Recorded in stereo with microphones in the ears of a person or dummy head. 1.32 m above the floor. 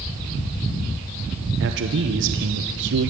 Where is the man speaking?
65° right (ahead or behind), 0.9 m.